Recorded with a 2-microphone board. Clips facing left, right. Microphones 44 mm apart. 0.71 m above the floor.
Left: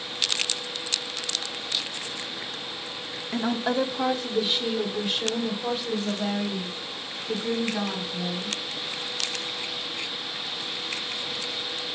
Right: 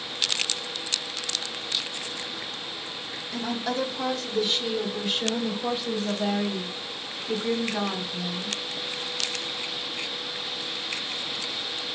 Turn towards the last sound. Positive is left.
turn(degrees=-5)  # may be behind; listen again after turning